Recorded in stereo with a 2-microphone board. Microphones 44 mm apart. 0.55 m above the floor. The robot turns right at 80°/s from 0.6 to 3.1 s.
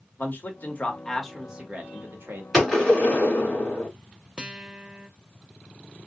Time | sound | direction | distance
0.2 | a man speaking | 45° left (ahead or behind) | 1.3 m
2.5 | a gunshot | straight ahead | 2 m
4.4 | a guitar | 20° right (ahead or behind) | 0.5 m